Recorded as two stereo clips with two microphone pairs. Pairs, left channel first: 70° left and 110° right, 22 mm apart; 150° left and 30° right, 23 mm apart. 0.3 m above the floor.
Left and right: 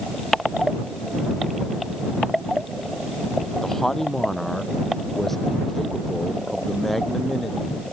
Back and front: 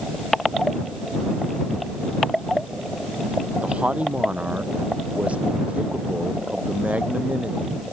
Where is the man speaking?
5° right; by 7.8 s 20° right.